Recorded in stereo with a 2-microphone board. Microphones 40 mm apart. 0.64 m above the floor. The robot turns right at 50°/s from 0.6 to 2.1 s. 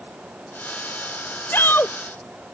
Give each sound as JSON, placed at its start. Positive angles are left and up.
{"t": 1.5, "sound": "a shout", "side_deg": 70}